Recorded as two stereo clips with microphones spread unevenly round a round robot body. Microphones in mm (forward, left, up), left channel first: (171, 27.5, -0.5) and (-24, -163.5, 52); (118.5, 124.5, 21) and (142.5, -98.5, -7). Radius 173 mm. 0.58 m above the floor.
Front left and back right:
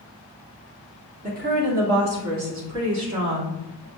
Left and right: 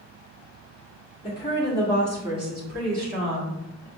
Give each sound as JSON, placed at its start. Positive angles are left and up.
{"t": 1.2, "sound": "a woman speaking", "azimuth_deg": 160, "distance_m": 0.9}